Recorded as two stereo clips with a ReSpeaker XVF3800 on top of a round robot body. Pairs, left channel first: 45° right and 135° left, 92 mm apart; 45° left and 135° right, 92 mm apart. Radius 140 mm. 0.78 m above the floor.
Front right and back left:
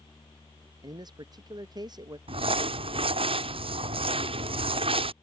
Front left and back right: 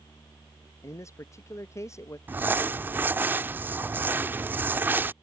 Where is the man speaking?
100° left.